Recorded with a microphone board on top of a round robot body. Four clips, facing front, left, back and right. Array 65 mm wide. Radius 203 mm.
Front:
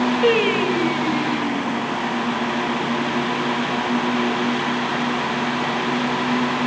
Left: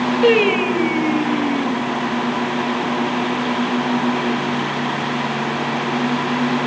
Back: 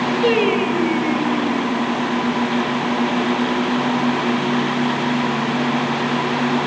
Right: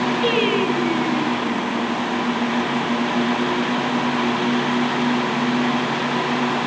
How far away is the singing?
About 3 m.